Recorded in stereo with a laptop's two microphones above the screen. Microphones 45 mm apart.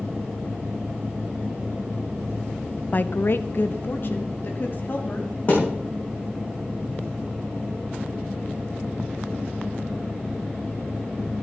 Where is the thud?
30° left (ahead or behind), 5 m.